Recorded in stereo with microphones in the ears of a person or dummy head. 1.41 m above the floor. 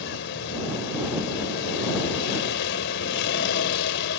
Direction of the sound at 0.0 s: 60° left (ahead or behind).